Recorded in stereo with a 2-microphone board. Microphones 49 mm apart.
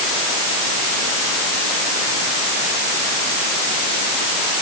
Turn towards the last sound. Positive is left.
No sound to turn to.